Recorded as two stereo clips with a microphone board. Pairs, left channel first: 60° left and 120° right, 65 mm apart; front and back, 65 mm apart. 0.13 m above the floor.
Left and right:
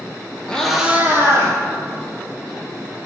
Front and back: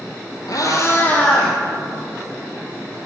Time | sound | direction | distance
0.5 | a cat meowing | 15° right | 1.1 m